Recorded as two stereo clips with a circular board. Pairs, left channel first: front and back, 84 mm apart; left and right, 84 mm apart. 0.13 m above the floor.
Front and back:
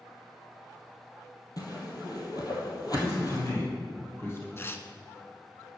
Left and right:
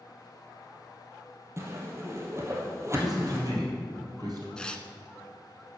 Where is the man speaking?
55° right, 3 m.